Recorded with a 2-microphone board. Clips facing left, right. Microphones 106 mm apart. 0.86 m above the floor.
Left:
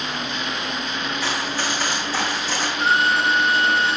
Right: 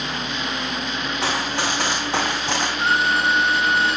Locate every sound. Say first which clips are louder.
1.2 s running footsteps: right 4 dB; 75° right (ahead or behind), 3 m; by 2.7 s 65° right (ahead or behind), 2.5 m
2.8 s a violin: left 2 dB; centre (ahead or behind), 1.9 m